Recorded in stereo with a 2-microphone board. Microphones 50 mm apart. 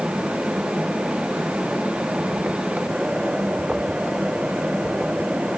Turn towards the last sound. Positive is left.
No sound to turn to.